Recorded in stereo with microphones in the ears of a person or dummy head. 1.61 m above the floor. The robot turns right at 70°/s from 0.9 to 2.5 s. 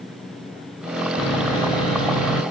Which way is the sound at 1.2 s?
170° left.